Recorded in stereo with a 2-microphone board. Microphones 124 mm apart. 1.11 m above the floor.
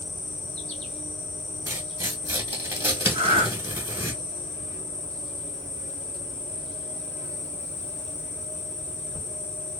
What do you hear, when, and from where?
0.0 s an insect: 65° left (ahead or behind), 1.1 m
1.7 s tearing paper: 20° right (ahead or behind), 1.2 m
3.1 s breathing: 50° right (ahead or behind), 0.6 m